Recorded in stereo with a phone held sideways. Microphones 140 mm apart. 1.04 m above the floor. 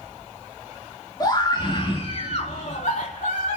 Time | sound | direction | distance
1.2 | a scream | 30° left (ahead or behind) | 3 m